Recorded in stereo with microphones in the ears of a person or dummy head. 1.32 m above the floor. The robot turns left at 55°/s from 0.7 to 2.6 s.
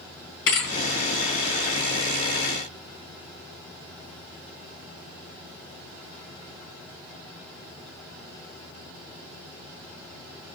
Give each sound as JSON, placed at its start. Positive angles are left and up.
{"t": 0.5, "sound": "a thud", "side_deg": 75, "distance_m": 4.0}